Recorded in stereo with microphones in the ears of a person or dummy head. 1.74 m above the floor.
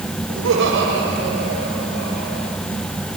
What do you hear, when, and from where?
0.3 s laughter: 70° right (ahead or behind), 8 m; by 2.5 s 60° right (ahead or behind), 6.5 m